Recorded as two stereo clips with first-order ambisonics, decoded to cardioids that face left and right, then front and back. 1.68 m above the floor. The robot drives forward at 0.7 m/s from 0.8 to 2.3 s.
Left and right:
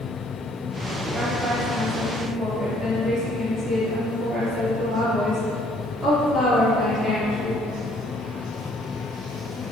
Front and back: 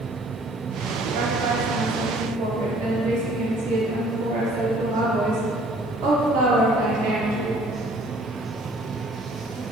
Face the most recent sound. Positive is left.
turn(degrees=-175)